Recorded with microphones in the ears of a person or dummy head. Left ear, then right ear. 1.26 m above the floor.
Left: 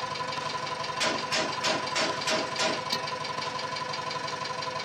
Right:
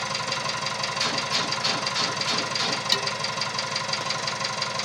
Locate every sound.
0.0 s an engine running: 75° right (ahead or behind), 0.9 m
1.0 s a gunshot: 15° left (ahead or behind), 0.8 m
2.9 s dishes clattering: 75° right (ahead or behind), 1.8 m